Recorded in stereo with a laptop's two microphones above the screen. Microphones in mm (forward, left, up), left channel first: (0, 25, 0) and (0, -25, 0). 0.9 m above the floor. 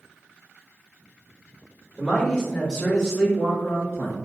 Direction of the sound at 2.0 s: 10° right (ahead or behind).